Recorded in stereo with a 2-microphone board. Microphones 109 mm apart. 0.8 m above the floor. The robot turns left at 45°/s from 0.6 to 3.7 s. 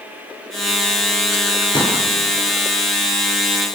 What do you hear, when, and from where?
1.7 s a pop: 40° left (ahead or behind), 6 m; by 2.0 s 55° left (ahead or behind), 6 m